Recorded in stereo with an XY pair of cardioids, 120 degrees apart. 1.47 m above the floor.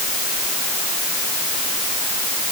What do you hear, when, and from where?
Only background noise.